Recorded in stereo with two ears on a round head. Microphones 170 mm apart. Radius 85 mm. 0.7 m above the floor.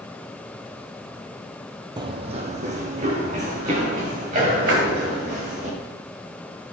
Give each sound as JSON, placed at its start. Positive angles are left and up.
{"t": 2.0, "sound": "running footsteps", "side_deg": -25, "distance_m": 0.8}
{"t": 4.7, "sound": "a splash", "side_deg": -70, "distance_m": 2.0}